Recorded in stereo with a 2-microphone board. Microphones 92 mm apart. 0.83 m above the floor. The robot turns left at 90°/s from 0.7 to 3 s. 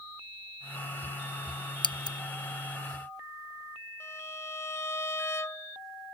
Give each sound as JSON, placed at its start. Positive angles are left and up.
{"t": 1.8, "sound": "scissors", "side_deg": 60}
{"t": 4.0, "sound": "a violin", "side_deg": 30}